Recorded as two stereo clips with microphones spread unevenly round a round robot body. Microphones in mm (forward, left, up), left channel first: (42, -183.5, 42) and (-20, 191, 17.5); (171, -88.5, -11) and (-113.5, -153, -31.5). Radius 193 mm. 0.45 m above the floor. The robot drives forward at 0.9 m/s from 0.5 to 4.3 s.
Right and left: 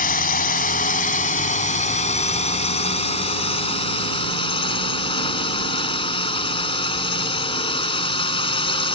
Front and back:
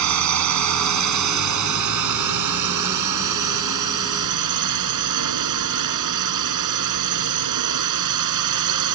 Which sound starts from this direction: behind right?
A drone, at 0.0 s.